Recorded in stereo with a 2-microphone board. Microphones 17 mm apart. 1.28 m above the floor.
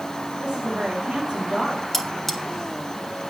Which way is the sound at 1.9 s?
10° left (ahead or behind).